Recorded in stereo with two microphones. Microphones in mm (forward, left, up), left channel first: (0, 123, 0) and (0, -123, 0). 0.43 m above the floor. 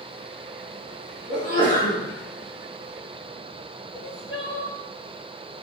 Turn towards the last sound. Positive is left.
turn(degrees=50)  # may be behind; listen again after turning